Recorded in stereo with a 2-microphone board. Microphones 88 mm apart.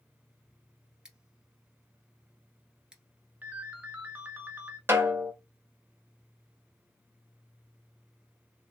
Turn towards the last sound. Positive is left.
turn(degrees=-25)  # may be behind; listen again after turning